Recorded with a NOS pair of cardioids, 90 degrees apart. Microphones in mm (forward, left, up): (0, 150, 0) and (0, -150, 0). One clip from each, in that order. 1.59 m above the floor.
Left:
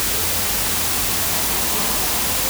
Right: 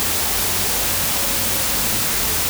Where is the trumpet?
I don't hear a trumpet.